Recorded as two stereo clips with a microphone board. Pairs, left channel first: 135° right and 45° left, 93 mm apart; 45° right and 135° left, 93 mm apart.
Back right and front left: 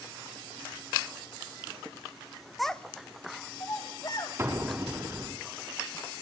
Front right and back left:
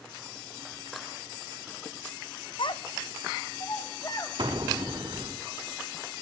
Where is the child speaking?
45° right, 1.0 m; by 4.3 s 95° right, 3 m.